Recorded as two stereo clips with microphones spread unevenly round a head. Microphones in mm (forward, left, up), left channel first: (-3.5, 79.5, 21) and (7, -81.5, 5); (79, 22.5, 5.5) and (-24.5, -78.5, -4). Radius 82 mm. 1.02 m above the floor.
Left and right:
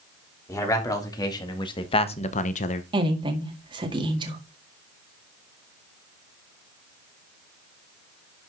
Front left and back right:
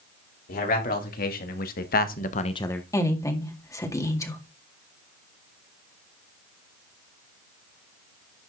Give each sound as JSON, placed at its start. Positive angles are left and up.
{"t": 0.5, "sound": "a man speaking", "azimuth_deg": 20, "distance_m": 3.5}
{"t": 2.9, "sound": "a woman speaking", "azimuth_deg": -25, "distance_m": 1.9}